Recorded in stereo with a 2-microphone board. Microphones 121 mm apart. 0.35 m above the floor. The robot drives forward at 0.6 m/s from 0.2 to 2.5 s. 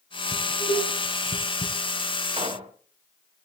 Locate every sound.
0.3 s dishes clattering: 80° left, 6 m; by 1.7 s 85° left, 6 m
2.3 s a pop: 65° right (ahead or behind), 1.9 m